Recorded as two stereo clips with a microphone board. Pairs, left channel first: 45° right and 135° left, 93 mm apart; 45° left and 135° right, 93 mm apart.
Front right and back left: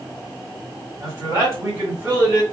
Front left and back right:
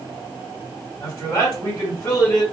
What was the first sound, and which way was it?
A man speaking, 95° left.